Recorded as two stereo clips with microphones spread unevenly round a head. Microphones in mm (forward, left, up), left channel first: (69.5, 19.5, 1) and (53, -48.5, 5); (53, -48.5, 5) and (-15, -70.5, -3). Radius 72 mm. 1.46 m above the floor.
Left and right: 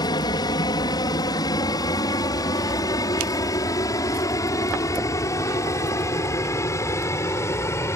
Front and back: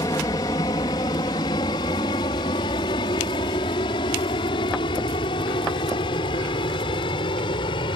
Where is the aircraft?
70° left; by 8.0 s 30° left.